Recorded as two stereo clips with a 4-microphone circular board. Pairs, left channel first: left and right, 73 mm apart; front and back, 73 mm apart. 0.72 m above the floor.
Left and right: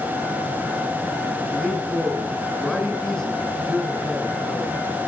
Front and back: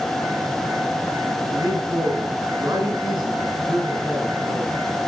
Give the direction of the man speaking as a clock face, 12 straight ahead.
6 o'clock.